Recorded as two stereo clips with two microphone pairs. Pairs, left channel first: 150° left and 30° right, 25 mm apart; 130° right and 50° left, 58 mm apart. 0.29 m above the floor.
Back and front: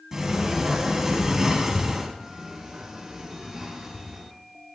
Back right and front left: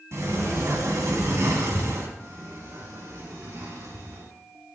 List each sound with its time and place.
0.1 s a sliding door: 40° left, 2.5 m
2.2 s a sliding door: 40° left, 4 m